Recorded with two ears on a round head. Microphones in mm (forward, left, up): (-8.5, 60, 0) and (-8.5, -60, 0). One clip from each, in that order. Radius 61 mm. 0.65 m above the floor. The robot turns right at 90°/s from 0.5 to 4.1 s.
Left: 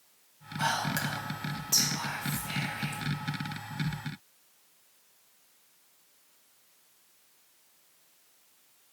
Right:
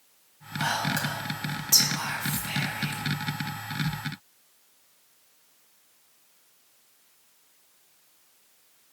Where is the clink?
No clink in this recording.